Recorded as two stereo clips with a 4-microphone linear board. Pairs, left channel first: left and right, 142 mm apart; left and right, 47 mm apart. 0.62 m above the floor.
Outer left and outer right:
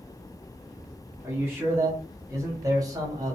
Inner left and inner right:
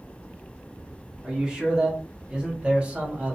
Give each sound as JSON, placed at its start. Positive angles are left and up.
{"t": 1.2, "sound": "a man speaking", "side_deg": -15, "distance_m": 1.4}